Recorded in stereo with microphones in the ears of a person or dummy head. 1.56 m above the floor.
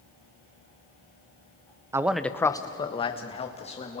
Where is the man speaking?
20° right (ahead or behind), 0.6 m; by 4.0 s 35° left (ahead or behind), 2.5 m.